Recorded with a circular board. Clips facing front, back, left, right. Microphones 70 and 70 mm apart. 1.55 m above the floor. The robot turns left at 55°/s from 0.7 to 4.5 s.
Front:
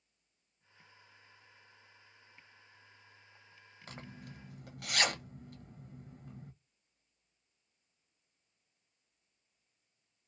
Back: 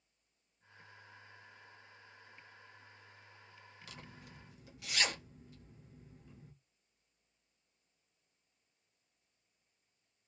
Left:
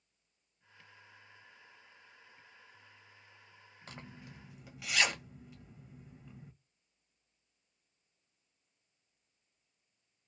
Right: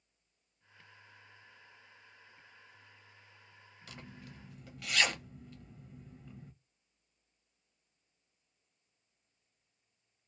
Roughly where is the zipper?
Ahead left.